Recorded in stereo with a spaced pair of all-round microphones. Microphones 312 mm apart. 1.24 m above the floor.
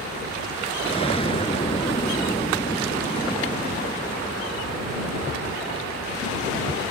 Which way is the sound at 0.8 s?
20° left (ahead or behind).